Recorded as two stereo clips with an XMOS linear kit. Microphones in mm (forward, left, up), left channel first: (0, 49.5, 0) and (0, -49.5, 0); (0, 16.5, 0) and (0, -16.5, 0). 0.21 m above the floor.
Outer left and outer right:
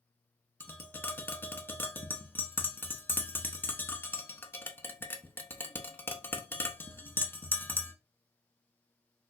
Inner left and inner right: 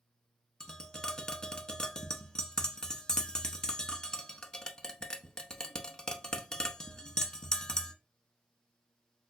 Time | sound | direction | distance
0.6 | tapping | 20° left (ahead or behind) | 0.5 m